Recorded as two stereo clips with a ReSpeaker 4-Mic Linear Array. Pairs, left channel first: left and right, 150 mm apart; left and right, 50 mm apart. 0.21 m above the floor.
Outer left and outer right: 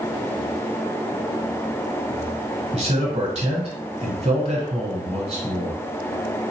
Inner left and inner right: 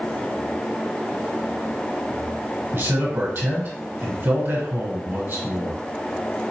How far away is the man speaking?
About 1.7 m.